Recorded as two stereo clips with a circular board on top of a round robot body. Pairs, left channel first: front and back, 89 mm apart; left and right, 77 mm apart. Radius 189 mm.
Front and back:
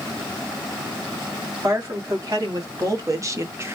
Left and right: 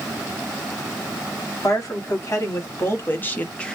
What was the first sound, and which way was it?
A woman speaking, 135° left.